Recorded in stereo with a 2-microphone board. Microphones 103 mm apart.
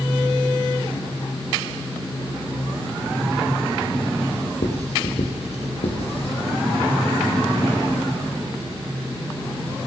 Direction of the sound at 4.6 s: 80° left.